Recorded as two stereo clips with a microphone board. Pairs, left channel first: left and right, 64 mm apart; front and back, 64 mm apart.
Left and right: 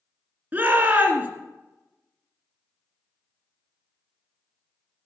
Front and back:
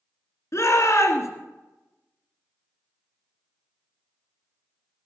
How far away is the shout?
About 2.5 m.